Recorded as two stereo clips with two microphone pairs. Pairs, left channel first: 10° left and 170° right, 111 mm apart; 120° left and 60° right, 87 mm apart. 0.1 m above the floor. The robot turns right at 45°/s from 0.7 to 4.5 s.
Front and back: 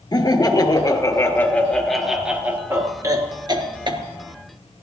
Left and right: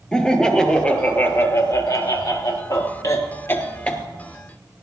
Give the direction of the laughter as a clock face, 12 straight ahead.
11 o'clock.